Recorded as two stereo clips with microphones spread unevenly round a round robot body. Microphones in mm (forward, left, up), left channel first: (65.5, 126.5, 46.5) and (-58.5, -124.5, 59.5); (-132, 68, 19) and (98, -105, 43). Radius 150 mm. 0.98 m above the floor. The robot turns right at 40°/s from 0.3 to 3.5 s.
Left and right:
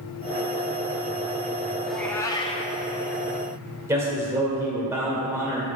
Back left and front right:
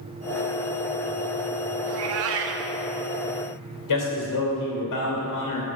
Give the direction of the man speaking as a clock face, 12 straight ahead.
7 o'clock.